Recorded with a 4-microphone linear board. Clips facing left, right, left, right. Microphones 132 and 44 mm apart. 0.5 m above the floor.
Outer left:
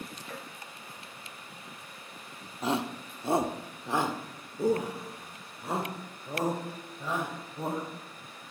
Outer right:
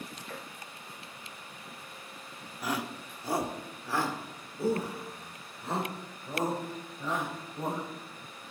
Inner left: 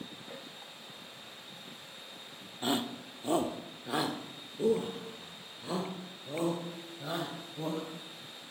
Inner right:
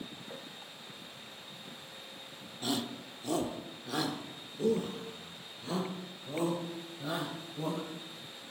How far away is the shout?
About 1.0 m.